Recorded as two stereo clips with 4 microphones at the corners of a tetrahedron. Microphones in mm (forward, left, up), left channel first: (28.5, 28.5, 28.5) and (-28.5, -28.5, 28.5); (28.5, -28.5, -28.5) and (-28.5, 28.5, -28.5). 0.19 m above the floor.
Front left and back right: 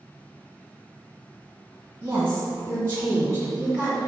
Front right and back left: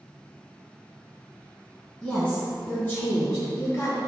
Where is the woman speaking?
105° right, 1.6 m; by 4.0 s 80° right, 2.5 m.